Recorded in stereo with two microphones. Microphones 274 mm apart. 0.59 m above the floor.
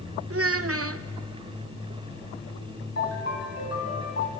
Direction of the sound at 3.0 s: 60° left (ahead or behind).